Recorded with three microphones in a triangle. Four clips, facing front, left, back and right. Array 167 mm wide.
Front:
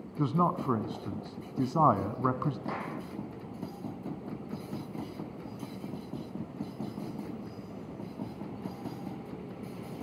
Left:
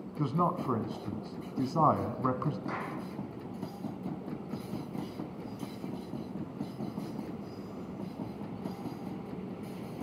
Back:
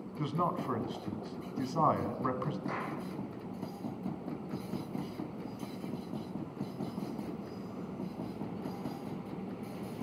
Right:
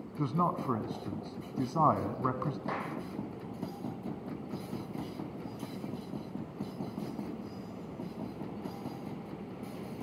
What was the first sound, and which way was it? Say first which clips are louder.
A man speaking: left 1 dB, front 5 dB; 5° left.